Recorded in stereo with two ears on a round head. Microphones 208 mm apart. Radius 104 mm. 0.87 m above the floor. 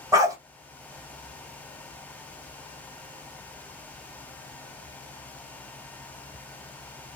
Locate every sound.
0.1 s a dog barking: 15° right (ahead or behind), 1.0 m